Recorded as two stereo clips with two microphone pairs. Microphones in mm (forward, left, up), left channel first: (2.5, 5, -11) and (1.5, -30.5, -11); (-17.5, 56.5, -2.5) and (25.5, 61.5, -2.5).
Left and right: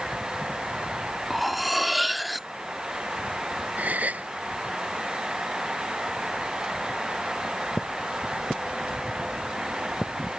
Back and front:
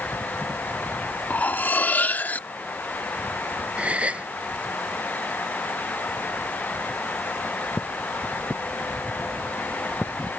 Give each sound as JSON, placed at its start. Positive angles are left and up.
{"t": 1.3, "sound": "cutlery clinking", "azimuth_deg": -175}
{"t": 3.8, "sound": "a gasp", "azimuth_deg": -50}